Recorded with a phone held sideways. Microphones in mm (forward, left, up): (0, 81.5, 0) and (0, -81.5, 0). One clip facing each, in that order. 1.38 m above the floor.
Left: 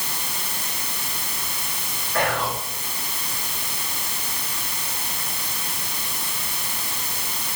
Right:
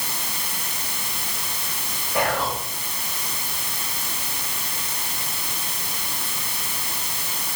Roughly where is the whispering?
Centre.